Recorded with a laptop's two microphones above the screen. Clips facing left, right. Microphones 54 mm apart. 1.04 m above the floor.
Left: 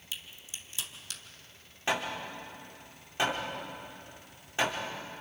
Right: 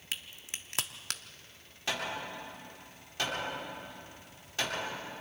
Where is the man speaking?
I don't hear a man speaking.